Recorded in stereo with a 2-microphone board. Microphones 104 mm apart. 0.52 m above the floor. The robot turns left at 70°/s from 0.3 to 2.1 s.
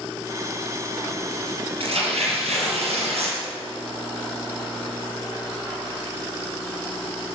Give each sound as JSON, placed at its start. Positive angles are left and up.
{"t": 1.8, "sound": "tearing paper", "side_deg": -65, "distance_m": 4.5}